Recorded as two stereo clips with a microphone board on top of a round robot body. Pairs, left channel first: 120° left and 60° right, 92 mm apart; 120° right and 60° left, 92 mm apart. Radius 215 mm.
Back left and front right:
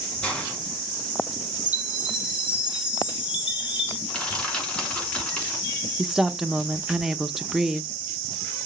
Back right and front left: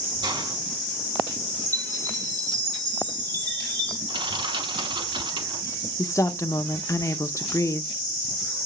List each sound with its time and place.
0.2 s a hiss: 45° left, 3 m
1.7 s a chime: 20° left, 2.0 m
4.1 s crushing: 40° left, 4.5 m
6.0 s a woman speaking: 140° right, 1.0 m